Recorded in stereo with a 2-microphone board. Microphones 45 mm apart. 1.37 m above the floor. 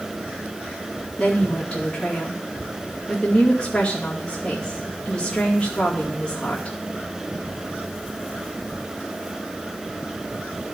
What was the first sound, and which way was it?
A woman speaking, 25° left (ahead or behind).